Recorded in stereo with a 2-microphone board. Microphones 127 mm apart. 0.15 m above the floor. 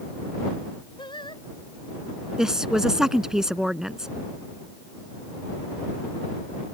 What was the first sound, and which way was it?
Singing, 40° left (ahead or behind).